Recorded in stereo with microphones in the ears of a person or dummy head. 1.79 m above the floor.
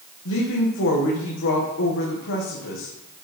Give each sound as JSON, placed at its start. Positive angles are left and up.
{"t": 0.2, "sound": "a woman speaking", "side_deg": 65, "distance_m": 1.9}